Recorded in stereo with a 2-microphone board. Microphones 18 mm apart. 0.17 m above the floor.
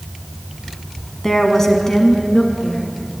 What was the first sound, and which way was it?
A woman speaking, 20° left (ahead or behind).